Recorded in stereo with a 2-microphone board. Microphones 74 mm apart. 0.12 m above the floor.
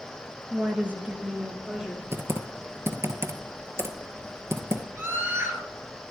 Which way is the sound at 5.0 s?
30° right (ahead or behind).